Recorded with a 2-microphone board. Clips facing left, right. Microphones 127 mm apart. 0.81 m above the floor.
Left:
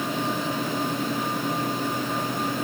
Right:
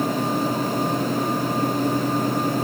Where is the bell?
No bell in this recording.